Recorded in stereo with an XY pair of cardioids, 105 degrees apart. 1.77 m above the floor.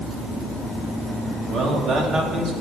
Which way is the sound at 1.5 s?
60° right.